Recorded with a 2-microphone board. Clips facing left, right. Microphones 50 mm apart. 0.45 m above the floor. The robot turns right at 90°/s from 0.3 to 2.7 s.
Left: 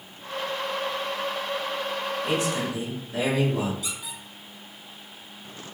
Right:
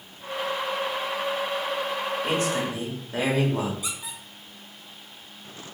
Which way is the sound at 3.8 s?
30° right (ahead or behind).